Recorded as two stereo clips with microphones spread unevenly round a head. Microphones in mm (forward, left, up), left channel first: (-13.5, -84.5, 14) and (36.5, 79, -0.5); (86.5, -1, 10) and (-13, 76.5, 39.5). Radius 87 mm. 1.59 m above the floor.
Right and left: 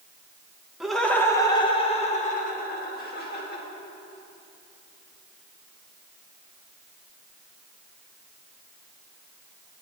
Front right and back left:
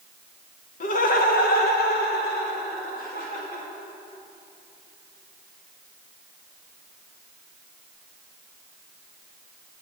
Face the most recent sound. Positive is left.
turn(degrees=-80)